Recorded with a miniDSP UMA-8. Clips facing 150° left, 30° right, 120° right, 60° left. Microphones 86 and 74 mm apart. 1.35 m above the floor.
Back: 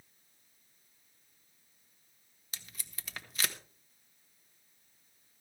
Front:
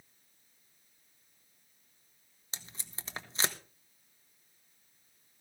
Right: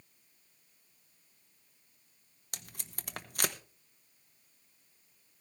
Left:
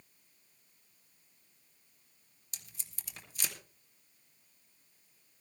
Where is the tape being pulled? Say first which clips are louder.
Front 2 dB, right 7 dB; 90° right, 1.1 m.